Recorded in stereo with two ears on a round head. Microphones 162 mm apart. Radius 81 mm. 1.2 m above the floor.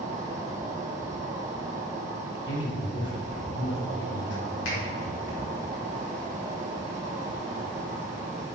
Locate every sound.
0.0 s an insect: 40° right (ahead or behind), 1.4 m
2.5 s a man speaking: 70° left (ahead or behind), 3.5 m
4.7 s a finger snap: 80° left, 4 m